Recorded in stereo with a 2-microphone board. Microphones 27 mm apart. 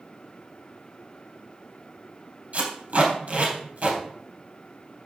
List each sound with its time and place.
2.5 s tape being pulled: 50° right (ahead or behind), 3.5 m